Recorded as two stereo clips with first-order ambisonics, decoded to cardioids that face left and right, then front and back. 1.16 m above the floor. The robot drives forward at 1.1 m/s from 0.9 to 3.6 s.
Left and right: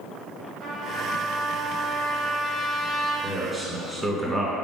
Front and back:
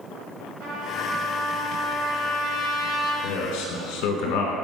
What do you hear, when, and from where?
0.6 s a trumpet: 150° right, 1.6 m; by 3.1 s 170° right, 4 m
3.2 s a man speaking: 10° right, 1.5 m; by 4.5 s 15° right, 1.2 m